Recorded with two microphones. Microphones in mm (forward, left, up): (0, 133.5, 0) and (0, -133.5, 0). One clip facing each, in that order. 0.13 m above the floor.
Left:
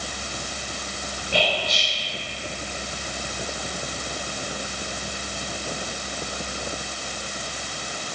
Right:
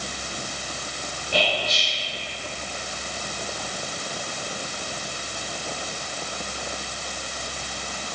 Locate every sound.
1.3 s whispering: 15° left (ahead or behind), 1.8 m